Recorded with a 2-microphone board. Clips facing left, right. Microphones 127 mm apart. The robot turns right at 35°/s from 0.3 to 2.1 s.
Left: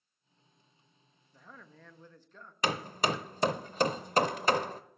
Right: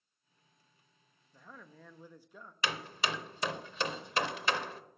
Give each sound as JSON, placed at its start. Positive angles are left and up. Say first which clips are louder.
{"t": 1.3, "sound": "a man speaking", "louder": "even", "side_deg": 0, "distance_m": 0.6}
{"t": 2.6, "sound": "hammering", "louder": "left 5 dB", "side_deg": 40, "distance_m": 0.5}